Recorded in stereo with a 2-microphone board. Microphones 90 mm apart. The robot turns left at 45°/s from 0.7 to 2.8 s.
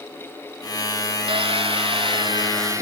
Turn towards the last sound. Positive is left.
turn(degrees=-145)